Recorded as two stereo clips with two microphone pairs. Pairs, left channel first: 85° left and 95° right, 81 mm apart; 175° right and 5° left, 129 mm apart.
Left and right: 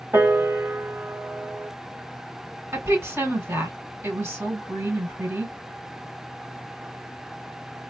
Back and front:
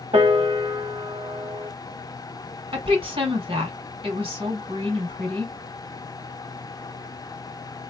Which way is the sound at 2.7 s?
35° right.